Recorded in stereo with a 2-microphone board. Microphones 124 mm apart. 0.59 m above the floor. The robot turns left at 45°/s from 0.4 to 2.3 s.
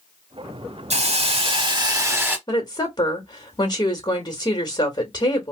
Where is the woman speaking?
40° left (ahead or behind), 1.2 m.